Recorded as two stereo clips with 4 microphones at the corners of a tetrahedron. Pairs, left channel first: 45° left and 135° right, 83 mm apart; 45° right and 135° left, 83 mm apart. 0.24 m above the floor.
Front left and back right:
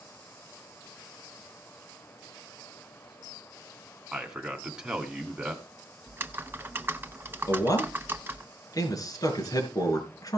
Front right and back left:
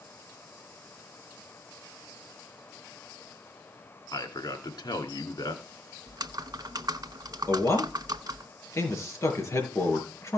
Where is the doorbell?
No doorbell in this recording.